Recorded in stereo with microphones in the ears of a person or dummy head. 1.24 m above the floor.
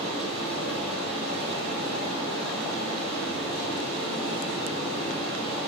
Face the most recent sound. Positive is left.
turn(degrees=-35)  # may be behind; listen again after turning